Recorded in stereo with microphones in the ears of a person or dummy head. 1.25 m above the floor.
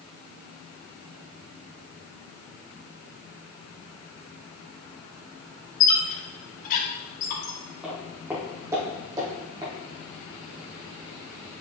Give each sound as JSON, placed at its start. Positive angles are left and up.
{"t": 5.8, "sound": "a squeak", "side_deg": 40, "distance_m": 1.8}
{"t": 7.8, "sound": "footsteps", "side_deg": -10, "distance_m": 3.0}